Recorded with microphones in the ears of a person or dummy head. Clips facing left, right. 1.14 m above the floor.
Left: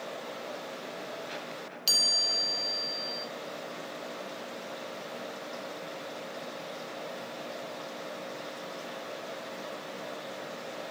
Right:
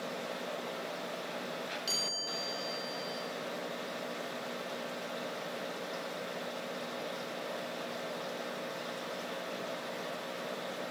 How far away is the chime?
About 2.5 m.